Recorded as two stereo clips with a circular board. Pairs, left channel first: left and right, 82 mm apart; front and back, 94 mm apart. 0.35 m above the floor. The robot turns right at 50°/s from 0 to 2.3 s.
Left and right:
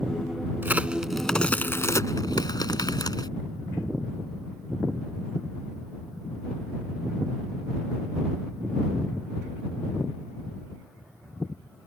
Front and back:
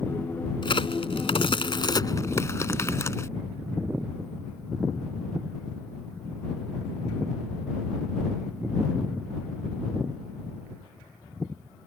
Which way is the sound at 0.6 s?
25° right.